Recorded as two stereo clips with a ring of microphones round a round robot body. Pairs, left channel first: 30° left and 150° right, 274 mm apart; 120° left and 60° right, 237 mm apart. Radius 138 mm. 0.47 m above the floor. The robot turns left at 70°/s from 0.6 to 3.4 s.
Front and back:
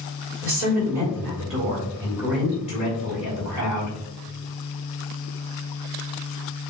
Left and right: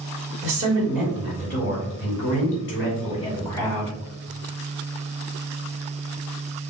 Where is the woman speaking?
120° right, 2.5 m; by 4.0 s 45° left, 2.5 m.